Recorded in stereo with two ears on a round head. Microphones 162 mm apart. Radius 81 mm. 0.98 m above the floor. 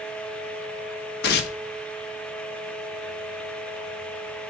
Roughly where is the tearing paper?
Left.